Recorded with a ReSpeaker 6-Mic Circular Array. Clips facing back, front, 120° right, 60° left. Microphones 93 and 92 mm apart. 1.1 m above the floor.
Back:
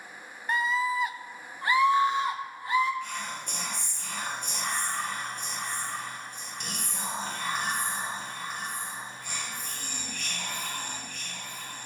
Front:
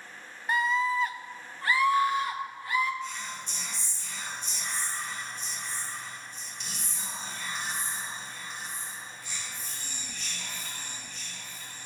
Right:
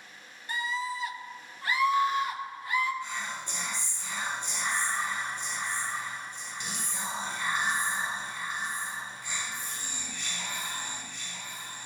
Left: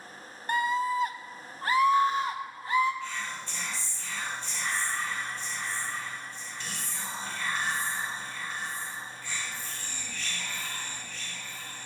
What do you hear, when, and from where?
0.5 s a scream: 85° left, 0.6 m; by 2.9 s 115° left, 1.7 m
3.0 s whispering: 170° left, 0.6 m